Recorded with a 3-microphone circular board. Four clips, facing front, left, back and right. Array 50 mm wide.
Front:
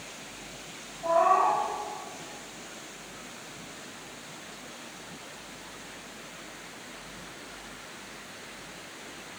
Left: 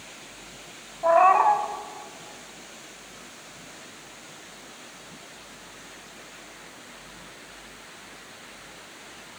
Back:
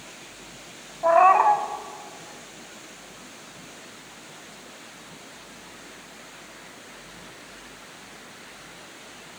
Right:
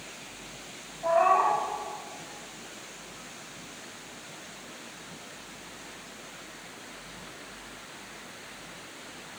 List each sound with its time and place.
1.0 s a cat meowing: 145° left, 1.0 m